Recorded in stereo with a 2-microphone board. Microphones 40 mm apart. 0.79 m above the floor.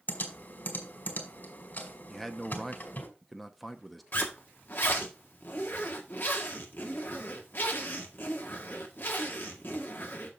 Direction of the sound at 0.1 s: 50° left (ahead or behind).